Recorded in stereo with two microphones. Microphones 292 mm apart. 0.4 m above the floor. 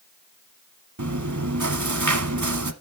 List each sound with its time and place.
1.0 s chewing: 85° right, 0.9 m